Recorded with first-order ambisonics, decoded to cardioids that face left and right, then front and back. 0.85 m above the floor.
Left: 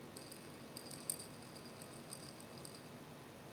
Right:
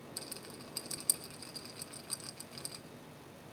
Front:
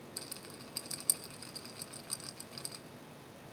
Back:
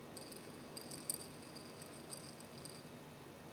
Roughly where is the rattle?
Ahead right.